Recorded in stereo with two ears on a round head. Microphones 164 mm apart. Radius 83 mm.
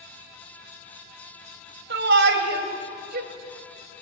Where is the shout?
65° right (ahead or behind), 3 m; by 3.3 s 55° right (ahead or behind), 3 m.